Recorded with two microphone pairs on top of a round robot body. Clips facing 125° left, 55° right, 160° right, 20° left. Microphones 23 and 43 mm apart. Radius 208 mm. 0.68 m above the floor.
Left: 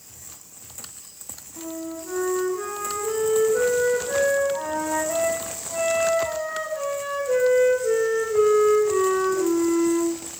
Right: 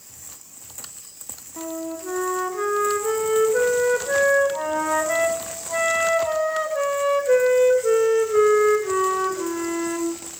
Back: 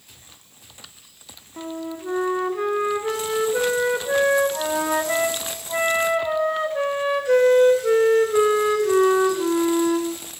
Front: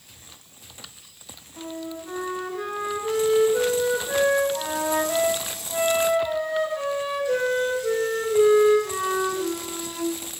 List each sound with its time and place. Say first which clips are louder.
1.6 s a flute: right 3 dB, back 3 dB; 110° right, 0.6 m